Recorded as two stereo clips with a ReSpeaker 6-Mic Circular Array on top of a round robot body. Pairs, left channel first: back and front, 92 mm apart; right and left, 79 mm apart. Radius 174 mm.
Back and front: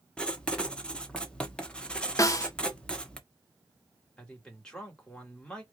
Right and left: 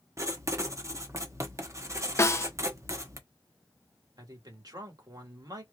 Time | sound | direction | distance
0.2 | writing | 105° left | 1.5 m
2.2 | a snare drum | 135° right | 0.8 m
4.2 | a man speaking | 100° left | 2.5 m